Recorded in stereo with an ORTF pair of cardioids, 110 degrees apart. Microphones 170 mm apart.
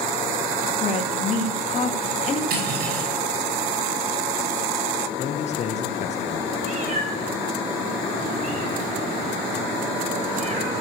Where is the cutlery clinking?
65° right, 6 m.